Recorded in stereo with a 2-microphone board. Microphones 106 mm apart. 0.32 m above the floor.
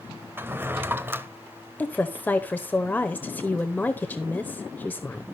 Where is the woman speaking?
15° left (ahead or behind), 0.9 m.